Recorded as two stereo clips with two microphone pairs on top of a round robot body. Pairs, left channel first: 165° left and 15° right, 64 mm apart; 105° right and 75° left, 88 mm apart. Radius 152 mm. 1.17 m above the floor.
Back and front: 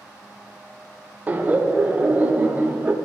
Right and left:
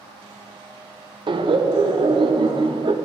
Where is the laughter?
50° left, 0.7 m.